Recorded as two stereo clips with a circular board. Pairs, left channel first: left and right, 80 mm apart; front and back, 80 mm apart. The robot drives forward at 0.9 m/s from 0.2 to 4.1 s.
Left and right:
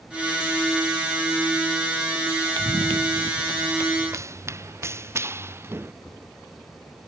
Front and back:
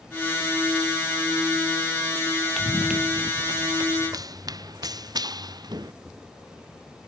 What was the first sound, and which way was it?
Running footsteps, 90° right.